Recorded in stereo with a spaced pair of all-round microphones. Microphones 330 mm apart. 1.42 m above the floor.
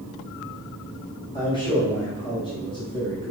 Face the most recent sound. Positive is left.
turn(degrees=15)  # may be behind; listen again after turning